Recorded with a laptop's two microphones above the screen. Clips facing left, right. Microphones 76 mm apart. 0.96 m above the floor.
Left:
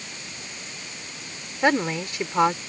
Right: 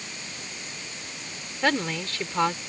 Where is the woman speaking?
20° left (ahead or behind).